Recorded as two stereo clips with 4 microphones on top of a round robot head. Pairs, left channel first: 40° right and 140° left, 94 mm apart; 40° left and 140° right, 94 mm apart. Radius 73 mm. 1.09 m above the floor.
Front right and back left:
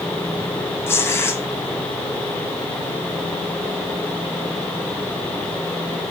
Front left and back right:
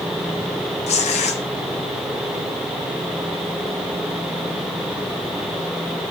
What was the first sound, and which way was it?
Tearing paper, 25° left.